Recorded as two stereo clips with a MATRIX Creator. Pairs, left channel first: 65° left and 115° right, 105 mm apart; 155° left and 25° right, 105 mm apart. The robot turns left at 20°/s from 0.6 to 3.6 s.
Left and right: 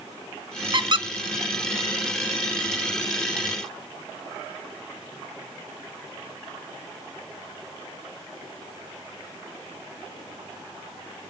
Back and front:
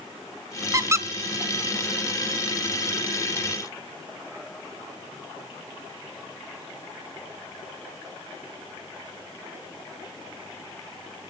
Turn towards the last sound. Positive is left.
turn(degrees=-135)